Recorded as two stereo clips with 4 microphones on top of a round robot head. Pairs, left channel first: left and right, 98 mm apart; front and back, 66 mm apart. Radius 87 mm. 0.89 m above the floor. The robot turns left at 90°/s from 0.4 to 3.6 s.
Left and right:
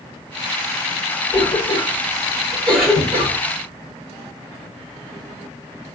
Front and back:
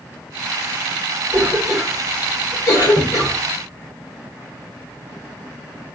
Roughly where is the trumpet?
I don't hear a trumpet.